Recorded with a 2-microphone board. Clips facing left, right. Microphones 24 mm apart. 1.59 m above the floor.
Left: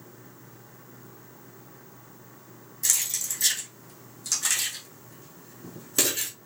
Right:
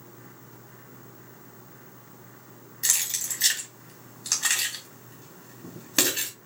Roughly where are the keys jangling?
Right.